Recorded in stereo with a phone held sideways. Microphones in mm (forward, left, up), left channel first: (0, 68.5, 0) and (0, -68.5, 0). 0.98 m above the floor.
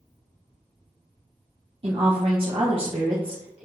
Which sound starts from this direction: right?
A woman speaking, at 1.8 s.